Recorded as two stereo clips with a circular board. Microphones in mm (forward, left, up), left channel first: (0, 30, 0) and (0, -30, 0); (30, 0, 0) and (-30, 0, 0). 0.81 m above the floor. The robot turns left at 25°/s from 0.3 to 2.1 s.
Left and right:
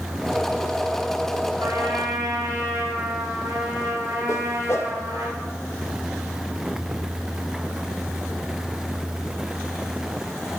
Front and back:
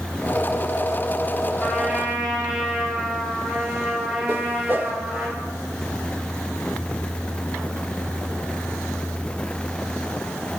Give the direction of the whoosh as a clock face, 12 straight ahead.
8 o'clock.